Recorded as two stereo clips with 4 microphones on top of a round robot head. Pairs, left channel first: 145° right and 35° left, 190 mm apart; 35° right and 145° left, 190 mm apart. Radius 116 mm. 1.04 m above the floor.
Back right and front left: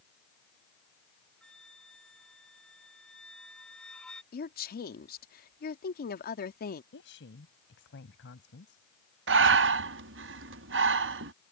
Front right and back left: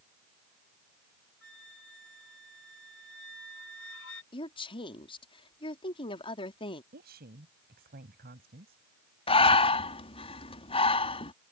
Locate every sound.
1.4 s a flute: 55° right
4.3 s a woman speaking: 100° right
6.9 s a woman speaking: 175° right
9.3 s breathing: 25° left